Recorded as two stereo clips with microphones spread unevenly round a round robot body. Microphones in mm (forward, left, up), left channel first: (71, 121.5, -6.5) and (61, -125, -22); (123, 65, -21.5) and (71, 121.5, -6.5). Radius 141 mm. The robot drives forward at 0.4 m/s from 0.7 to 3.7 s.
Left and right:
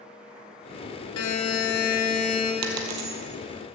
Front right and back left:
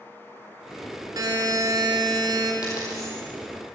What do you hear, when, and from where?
1.2 s a buzzer: 100° left, 2.5 m; by 2.5 s 110° left, 2.5 m
2.6 s a dropped coin: 110° right, 1.7 m; by 3.2 s 120° right, 1.8 m